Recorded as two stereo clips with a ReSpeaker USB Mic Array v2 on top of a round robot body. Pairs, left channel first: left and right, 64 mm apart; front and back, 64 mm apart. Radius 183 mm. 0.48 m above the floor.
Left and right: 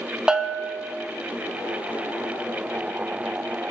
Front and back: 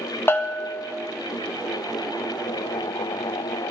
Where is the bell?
20° right, 0.8 m.